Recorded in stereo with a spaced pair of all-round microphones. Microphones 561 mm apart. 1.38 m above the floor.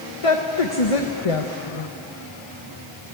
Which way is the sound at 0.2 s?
65° left (ahead or behind).